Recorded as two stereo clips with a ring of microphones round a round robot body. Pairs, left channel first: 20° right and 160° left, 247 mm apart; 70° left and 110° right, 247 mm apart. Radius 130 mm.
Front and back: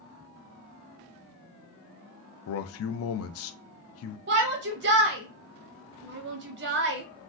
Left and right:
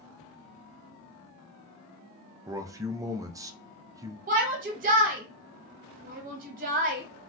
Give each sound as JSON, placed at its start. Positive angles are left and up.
{"t": 2.5, "sound": "a man speaking", "azimuth_deg": -35, "distance_m": 0.5}
{"t": 4.3, "sound": "a shout", "azimuth_deg": -165, "distance_m": 0.6}